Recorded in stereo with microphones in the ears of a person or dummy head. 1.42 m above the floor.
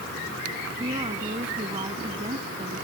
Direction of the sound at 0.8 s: 20° right (ahead or behind).